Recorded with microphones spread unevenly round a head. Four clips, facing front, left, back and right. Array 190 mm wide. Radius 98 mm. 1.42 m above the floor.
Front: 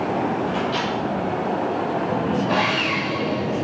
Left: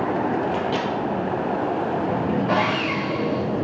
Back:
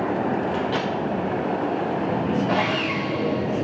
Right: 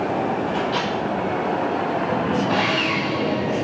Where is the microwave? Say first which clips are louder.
Even, front 1 dB; 110° left, 1.9 m.